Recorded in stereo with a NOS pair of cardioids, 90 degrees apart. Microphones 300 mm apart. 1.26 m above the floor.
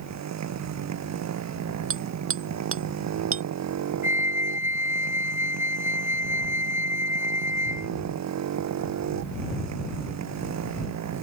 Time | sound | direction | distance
0.0 | a motorcycle | 65° right | ?
1.9 | hammering | 45° right | ?
4.0 | a flute | 10° right | ?